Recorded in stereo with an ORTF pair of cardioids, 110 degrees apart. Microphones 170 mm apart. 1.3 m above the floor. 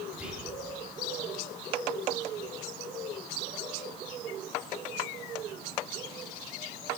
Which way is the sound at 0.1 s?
10° right.